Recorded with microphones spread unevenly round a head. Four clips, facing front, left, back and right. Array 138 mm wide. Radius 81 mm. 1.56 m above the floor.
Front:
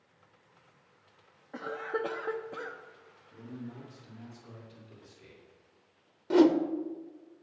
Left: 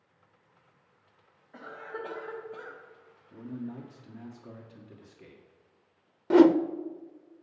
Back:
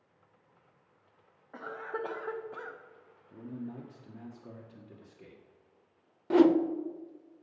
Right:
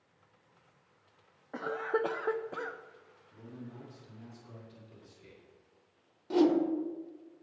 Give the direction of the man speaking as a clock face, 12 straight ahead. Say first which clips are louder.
Left 9 dB, back 3 dB; 7 o'clock.